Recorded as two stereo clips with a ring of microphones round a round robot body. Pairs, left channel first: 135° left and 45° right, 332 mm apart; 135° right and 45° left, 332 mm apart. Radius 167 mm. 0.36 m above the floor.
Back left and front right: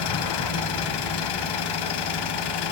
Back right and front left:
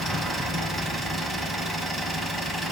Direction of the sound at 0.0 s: 135° left.